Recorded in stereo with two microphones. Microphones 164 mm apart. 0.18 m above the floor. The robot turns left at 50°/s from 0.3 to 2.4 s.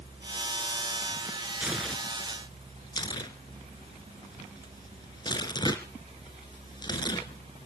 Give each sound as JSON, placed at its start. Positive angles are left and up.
{"t": 1.6, "sound": "tearing paper", "side_deg": -10, "distance_m": 1.8}